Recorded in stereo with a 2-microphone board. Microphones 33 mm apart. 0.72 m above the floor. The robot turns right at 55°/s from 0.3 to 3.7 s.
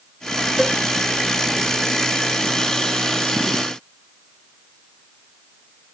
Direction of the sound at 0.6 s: 5° right (ahead or behind).